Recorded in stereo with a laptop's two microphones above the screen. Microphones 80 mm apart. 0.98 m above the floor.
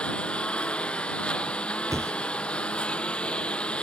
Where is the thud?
35° right (ahead or behind).